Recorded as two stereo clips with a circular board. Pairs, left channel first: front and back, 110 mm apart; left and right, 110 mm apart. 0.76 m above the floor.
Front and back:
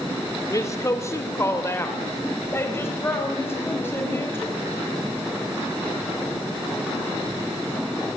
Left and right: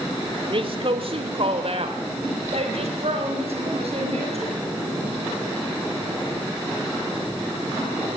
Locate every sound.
0.5 s a woman speaking: 60° right, 1.9 m; by 4.6 s 70° right, 6.5 m